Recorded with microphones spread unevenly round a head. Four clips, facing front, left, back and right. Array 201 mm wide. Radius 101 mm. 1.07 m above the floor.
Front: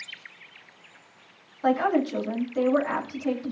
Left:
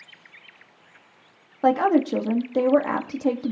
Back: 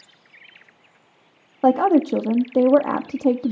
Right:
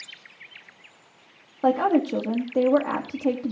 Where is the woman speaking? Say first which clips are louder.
Left 2 dB, back 7 dB; 175° left, 1.3 m.